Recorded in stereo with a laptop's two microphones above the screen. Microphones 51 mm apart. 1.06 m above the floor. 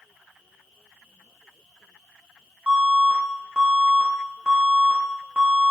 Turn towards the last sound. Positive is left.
turn(degrees=-15)  # may be behind; listen again after turning